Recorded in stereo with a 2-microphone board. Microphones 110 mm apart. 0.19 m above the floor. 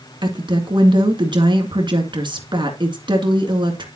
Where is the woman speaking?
45° right (ahead or behind), 2.5 m.